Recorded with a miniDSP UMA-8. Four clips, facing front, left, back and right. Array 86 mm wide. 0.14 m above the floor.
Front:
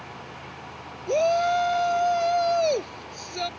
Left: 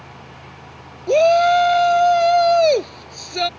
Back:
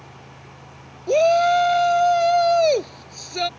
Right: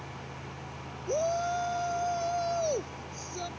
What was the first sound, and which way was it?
A shout, 115° left.